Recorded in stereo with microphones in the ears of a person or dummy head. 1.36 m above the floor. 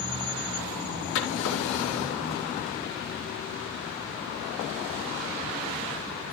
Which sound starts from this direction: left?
A drawer, at 1.1 s.